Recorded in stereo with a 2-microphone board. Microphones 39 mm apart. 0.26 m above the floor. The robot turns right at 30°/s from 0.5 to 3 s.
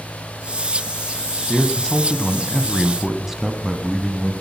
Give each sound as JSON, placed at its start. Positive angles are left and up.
{"t": 1.5, "sound": "a man speaking", "azimuth_deg": 145, "distance_m": 1.8}